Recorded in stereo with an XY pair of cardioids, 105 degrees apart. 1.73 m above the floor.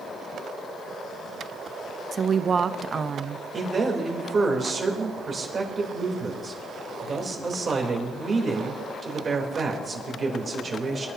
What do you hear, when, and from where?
2.1 s a woman speaking: 40° right, 0.7 m
3.5 s a man speaking: 35° right, 3.5 m